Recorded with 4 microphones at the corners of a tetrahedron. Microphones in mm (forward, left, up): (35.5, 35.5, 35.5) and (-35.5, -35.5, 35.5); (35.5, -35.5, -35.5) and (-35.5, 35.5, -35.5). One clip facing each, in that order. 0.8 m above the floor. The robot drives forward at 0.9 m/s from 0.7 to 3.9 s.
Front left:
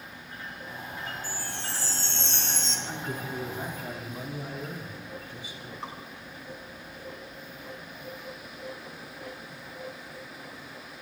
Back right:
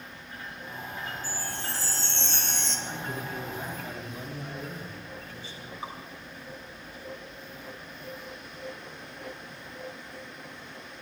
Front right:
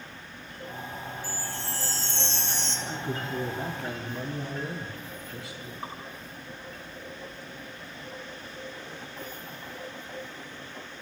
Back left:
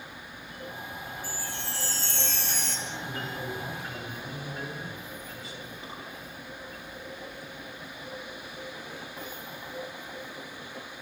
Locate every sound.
1.2 s a chime: 90° right, 4.5 m; by 2.8 s 110° right, 4.5 m
2.9 s a man speaking: 30° right, 8.5 m
5.8 s dripping: 50° right, 6 m